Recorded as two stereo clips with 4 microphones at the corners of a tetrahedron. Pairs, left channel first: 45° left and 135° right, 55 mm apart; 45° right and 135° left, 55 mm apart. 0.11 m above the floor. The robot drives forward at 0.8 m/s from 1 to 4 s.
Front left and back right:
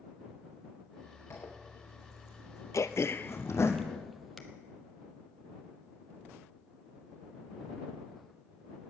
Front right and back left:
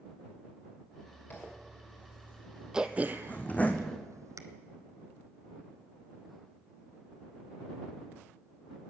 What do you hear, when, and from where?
1.3 s a zipper: 5° left, 3.5 m; by 3.7 s 15° left, 1.6 m
2.7 s throat clearing: 55° left, 0.7 m; by 4.4 s 140° left, 0.9 m